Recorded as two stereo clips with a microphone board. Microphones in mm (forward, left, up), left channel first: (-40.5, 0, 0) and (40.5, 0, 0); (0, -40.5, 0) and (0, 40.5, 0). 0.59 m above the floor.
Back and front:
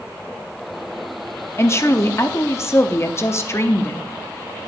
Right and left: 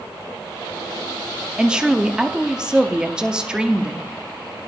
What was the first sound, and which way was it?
A woman speaking, 160° left.